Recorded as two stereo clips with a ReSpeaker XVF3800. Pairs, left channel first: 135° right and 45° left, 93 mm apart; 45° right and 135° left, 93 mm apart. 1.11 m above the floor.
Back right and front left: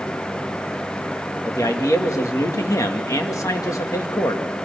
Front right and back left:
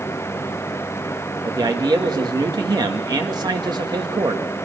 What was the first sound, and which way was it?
A man speaking, 175° left.